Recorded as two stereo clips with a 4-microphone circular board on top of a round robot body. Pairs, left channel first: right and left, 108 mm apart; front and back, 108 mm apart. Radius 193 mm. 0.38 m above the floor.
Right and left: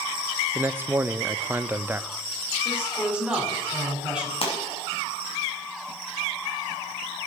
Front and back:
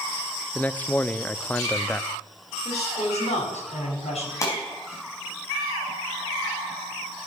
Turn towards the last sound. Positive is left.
turn(degrees=-60)